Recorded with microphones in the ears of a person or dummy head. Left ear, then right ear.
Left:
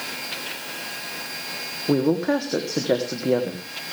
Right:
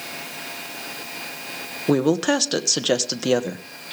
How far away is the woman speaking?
About 1.3 m.